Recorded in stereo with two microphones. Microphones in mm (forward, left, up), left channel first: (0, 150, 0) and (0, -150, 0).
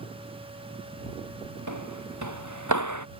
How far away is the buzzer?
I don't hear a buzzer.